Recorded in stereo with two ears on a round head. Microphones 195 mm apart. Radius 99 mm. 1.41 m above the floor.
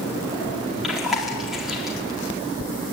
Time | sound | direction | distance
0.8 | chewing | centre (ahead or behind) | 4.5 m